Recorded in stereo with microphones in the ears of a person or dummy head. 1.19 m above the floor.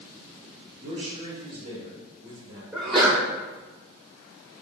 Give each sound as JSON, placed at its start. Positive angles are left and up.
{"t": 0.8, "sound": "a man speaking", "side_deg": -35, "distance_m": 1.6}
{"t": 2.7, "sound": "a sneeze", "side_deg": 5, "distance_m": 0.9}